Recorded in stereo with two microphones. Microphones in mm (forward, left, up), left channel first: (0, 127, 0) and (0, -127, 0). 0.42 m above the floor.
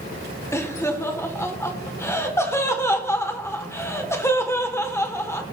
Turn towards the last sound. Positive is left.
turn(degrees=10)  # may be behind; listen again after turning